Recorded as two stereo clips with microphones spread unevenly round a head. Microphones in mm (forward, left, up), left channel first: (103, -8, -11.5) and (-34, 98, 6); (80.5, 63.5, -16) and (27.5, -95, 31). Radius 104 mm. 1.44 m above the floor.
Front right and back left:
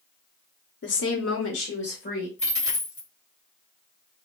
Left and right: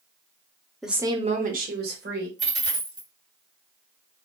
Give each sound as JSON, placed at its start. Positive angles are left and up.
{"t": 0.8, "sound": "a woman speaking", "azimuth_deg": -15, "distance_m": 0.8}
{"t": 2.4, "sound": "a dropped coin", "azimuth_deg": -90, "distance_m": 1.8}